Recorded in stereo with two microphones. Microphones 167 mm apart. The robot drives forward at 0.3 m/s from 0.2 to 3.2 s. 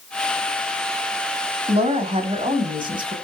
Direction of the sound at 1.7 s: 35° right (ahead or behind).